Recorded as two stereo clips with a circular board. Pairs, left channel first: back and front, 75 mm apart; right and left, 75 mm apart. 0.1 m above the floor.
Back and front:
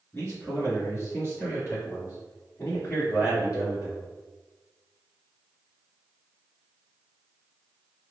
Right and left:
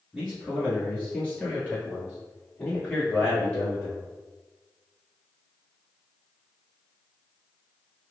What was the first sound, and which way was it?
A man speaking, straight behind.